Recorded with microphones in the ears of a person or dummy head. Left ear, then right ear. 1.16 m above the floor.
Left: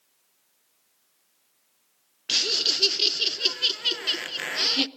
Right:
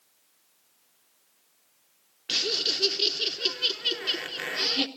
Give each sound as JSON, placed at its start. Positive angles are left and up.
{"t": 2.3, "sound": "laughter", "side_deg": 15, "distance_m": 0.8}